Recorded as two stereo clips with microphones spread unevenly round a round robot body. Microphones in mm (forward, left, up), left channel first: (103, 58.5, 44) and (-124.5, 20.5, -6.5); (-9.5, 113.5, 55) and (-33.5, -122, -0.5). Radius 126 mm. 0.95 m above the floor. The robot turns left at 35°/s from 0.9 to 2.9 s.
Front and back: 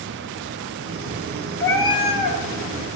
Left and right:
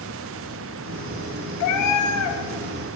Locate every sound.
1.6 s a cat meowing: 85° left, 1.2 m; by 2.4 s 60° left, 1.2 m